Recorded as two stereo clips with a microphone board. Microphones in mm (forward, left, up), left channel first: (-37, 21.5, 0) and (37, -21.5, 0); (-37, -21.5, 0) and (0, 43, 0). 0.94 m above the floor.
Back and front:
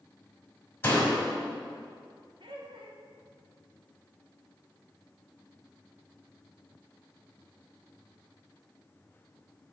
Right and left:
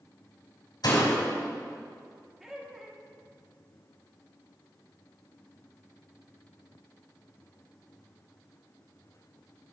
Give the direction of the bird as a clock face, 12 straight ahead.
No bird in this recording.